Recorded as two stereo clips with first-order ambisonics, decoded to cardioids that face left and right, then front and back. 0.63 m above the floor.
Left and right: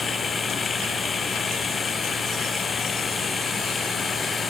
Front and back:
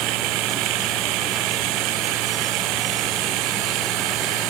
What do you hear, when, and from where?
0.0 s running water: 160° left